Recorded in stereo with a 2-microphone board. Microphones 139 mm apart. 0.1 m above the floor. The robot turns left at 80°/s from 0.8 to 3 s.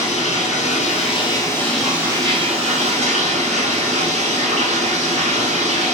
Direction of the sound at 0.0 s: 80° left.